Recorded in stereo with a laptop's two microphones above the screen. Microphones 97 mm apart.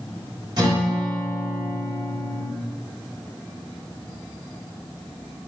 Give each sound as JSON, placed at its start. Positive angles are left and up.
{"t": 0.6, "sound": "a guitar", "side_deg": -50, "distance_m": 2.5}